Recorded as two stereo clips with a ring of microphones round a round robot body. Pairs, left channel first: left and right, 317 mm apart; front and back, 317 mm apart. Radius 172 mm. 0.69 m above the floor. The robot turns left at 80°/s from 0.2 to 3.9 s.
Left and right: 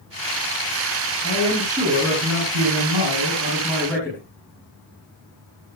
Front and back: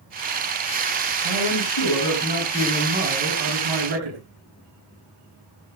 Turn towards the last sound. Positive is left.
turn(degrees=175)